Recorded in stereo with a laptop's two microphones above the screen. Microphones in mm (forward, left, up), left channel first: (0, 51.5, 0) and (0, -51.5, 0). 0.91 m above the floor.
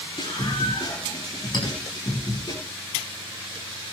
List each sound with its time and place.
0.2 s a scream: 60° left (ahead or behind), 9 m; by 2.5 s 50° left (ahead or behind), 8 m
1.5 s a clink: 50° left (ahead or behind), 6 m